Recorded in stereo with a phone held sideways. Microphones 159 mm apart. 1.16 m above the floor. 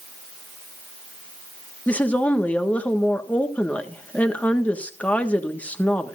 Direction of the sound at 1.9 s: 10° left (ahead or behind).